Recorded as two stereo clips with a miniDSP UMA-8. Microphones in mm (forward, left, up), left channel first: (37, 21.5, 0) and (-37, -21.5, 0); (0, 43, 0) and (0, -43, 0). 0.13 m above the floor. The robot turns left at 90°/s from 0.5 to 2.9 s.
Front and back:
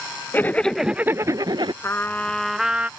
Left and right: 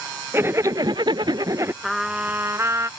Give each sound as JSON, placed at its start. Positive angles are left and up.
{"t": 0.3, "sound": "a zipper", "azimuth_deg": -35}
{"t": 1.8, "sound": "a trumpet", "azimuth_deg": 5}